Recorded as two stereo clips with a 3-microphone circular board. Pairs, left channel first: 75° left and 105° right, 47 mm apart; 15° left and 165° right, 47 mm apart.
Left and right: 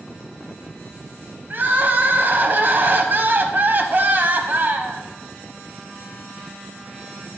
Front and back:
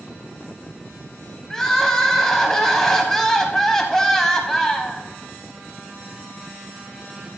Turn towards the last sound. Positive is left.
turn(degrees=-65)